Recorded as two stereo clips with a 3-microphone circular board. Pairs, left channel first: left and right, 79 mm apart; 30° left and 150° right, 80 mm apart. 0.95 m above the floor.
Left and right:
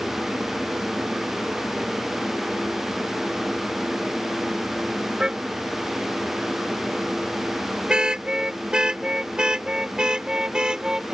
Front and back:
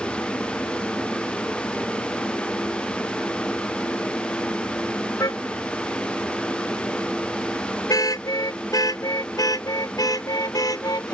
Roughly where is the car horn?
Ahead.